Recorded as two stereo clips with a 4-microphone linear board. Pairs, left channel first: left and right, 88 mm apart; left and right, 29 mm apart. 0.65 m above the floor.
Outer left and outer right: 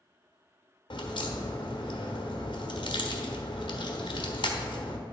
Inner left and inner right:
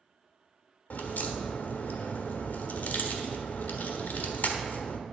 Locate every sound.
0.9 s a crack: 65° left (ahead or behind), 1.2 m